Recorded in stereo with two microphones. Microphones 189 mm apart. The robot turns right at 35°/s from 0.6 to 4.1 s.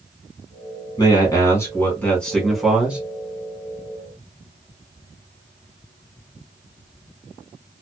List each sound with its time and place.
1.0 s a man speaking: 20° left (ahead or behind), 1.4 m; by 3.0 s 5° right (ahead or behind), 1.4 m